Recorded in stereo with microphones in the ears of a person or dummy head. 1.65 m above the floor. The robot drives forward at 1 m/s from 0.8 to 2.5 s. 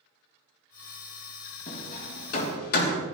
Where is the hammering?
45° left (ahead or behind), 4 m; by 3.0 s 55° left (ahead or behind), 3 m.